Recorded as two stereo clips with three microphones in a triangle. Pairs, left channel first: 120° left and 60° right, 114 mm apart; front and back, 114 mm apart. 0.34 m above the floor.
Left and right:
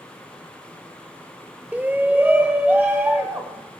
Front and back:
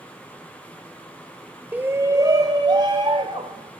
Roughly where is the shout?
Behind right.